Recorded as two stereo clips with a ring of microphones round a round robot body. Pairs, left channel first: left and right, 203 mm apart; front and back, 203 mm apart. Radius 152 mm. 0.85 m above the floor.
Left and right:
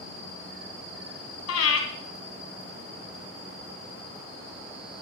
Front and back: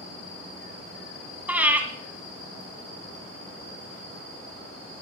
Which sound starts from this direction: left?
Breathing, at 1.5 s.